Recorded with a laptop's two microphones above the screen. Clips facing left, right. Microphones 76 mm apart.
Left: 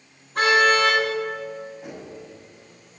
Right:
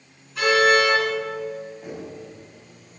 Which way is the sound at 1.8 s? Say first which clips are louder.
Right 2 dB; centre (ahead or behind).